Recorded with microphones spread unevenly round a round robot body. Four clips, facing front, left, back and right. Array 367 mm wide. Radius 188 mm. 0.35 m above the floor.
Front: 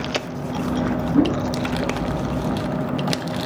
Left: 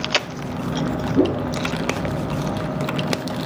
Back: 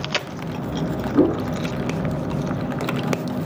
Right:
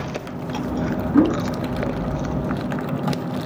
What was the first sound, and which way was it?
A whoosh, 85° right.